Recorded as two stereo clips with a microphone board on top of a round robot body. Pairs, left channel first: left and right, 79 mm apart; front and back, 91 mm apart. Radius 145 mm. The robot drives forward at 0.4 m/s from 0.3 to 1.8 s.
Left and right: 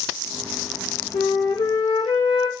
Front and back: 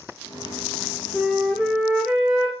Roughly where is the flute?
Left.